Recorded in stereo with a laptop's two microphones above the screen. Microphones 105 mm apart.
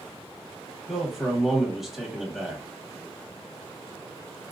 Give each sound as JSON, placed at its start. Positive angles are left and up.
{"t": 0.9, "sound": "a man speaking", "side_deg": -5, "distance_m": 1.1}